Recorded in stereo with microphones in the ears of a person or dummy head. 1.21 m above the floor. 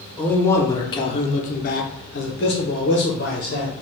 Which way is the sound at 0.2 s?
15° left (ahead or behind).